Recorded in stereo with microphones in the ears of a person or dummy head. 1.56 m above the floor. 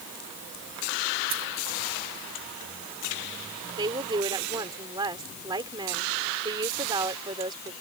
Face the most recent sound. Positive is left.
turn(degrees=-25)  # may be behind; listen again after turning